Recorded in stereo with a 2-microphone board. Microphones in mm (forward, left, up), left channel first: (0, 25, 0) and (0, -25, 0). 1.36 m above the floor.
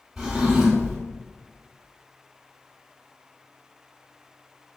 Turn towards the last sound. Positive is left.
turn(degrees=-10)  # may be behind; listen again after turning